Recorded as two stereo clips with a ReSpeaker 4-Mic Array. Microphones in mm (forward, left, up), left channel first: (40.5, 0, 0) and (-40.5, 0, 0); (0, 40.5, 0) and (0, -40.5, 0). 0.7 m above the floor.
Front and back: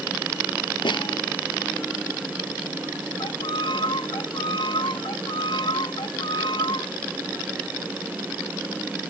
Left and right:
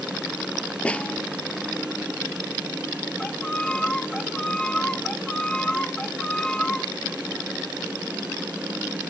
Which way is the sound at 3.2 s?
10° left.